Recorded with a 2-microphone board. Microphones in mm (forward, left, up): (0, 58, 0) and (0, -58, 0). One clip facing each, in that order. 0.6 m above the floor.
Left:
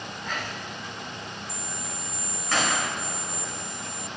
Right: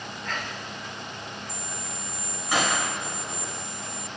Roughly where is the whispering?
Centre.